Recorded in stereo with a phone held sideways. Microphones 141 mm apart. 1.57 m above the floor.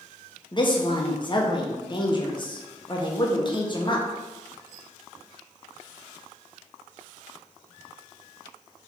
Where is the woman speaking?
35° left (ahead or behind), 0.7 m.